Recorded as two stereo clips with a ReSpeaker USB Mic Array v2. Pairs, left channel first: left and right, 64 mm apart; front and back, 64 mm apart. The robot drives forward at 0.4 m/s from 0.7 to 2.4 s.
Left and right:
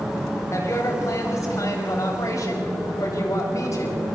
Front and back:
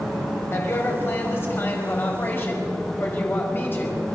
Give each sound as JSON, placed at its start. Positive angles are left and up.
{"t": 0.5, "sound": "a woman speaking", "azimuth_deg": 50, "distance_m": 5.0}